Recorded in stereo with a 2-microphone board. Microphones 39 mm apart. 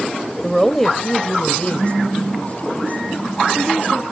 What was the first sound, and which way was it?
A woman speaking, 5° right (ahead or behind).